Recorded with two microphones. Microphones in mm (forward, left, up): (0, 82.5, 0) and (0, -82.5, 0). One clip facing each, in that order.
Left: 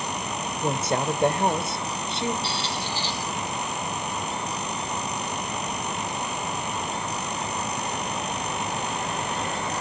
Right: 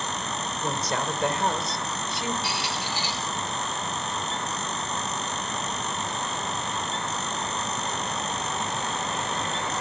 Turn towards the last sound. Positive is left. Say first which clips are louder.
# left 1 dB
turn(degrees=-10)  # may be behind; listen again after turning